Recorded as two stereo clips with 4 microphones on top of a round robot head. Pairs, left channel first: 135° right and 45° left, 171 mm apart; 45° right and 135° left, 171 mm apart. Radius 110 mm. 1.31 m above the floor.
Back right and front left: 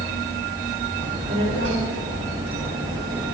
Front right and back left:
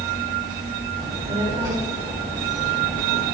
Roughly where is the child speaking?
Left.